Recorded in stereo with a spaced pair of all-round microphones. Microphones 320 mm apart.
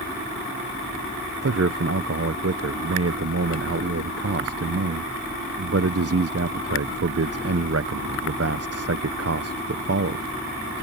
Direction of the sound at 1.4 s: 50° right (ahead or behind).